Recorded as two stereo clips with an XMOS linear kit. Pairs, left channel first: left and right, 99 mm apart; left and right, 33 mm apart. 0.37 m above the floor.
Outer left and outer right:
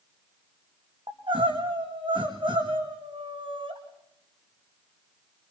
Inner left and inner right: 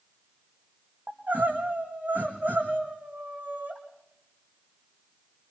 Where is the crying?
55° right (ahead or behind), 4 m.